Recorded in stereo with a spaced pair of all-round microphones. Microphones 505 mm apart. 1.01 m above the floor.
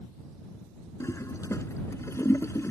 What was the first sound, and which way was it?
A toilet flushing, 5° left (ahead or behind).